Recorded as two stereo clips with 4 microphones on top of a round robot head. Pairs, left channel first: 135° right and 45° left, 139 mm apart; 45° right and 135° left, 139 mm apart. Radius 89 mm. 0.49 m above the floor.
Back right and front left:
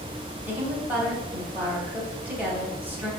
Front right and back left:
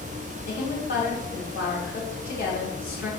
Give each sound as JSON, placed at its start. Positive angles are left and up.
{"t": 0.5, "sound": "a woman speaking", "azimuth_deg": -35, "distance_m": 3.5}